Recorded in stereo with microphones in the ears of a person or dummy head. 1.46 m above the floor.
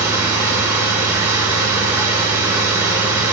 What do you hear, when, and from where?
0.0 s a machine running: 15° right (ahead or behind), 1.5 m